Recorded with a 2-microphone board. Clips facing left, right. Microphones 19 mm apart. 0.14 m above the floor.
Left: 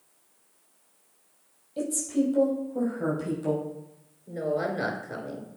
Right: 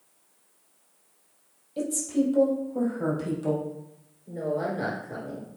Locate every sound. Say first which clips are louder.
1.8 s a woman speaking: right 1 dB; 10° right (ahead or behind), 3 m; by 3.6 s 15° right (ahead or behind), 4 m
4.3 s a woman speaking: left 1 dB; 35° left (ahead or behind), 2 m